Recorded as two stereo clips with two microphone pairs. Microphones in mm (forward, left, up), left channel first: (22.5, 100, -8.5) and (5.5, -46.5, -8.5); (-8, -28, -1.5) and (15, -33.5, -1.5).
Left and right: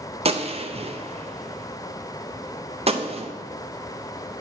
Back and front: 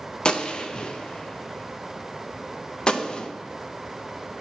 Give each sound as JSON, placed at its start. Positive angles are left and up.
{"t": 0.2, "sound": "a gunshot", "azimuth_deg": -145, "distance_m": 0.5}